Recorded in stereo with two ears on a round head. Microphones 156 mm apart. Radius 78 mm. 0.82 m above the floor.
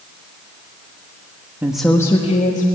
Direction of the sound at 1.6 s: 10° right (ahead or behind).